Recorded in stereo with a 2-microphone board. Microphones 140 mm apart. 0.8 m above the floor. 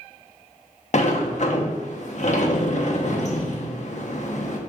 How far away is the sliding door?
About 0.9 m.